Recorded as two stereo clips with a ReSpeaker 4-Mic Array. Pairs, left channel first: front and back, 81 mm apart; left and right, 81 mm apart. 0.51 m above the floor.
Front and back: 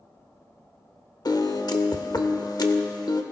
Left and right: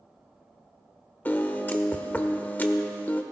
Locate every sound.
1.2 s a piano: 25° left, 0.9 m